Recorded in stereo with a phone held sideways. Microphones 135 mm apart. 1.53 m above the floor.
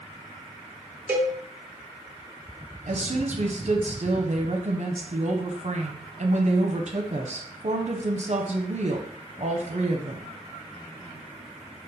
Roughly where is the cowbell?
Centre.